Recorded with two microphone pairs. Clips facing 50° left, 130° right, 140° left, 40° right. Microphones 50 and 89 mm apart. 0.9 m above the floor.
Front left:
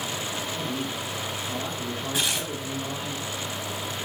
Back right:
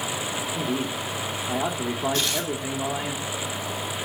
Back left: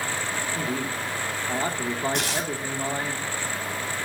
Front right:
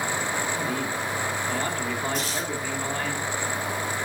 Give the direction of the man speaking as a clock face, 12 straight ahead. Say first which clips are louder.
Back right 3 dB, front right 1 dB; 5 o'clock.